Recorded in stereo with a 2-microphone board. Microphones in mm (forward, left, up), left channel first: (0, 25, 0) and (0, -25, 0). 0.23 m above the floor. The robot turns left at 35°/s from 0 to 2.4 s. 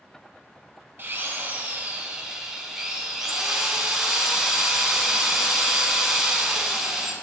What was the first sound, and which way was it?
A drill, 115° right.